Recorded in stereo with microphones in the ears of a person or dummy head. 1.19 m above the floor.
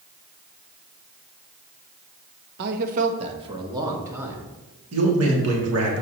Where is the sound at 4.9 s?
80° right, 2.5 m.